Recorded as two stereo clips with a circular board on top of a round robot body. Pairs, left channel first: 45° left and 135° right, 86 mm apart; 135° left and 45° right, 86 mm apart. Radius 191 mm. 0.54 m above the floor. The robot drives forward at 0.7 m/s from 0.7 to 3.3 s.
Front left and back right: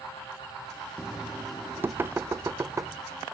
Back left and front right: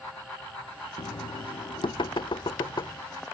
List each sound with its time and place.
1.0 s knocking: 135° left; by 3.0 s 165° left